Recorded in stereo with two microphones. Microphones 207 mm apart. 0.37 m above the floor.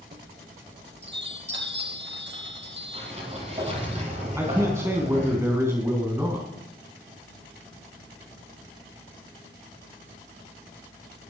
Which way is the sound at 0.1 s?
60° right (ahead or behind).